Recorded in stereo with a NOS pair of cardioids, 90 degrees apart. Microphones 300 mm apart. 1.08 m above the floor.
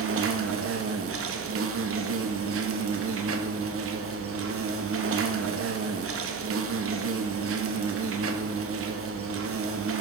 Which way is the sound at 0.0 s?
45° right.